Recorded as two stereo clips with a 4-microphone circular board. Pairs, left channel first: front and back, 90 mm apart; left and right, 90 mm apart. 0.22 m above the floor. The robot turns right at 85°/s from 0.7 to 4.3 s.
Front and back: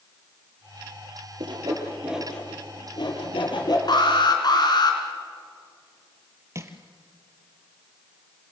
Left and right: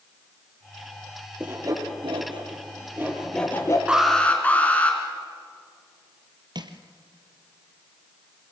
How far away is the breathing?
I don't hear breathing.